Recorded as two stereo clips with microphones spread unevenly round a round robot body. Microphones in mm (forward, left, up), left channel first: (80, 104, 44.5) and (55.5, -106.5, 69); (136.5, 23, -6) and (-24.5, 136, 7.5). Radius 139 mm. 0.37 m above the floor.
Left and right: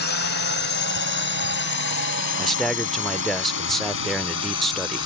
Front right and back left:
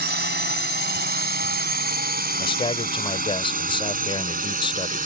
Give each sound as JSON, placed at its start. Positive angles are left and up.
{"t": 0.0, "sound": "a drone", "azimuth_deg": 115}
{"t": 2.4, "sound": "a man speaking", "azimuth_deg": 5}